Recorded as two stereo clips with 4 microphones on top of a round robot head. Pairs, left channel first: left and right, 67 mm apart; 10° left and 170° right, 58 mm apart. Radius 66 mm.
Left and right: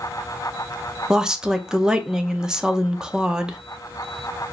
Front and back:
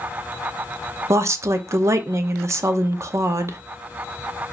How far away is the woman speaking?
About 0.7 m.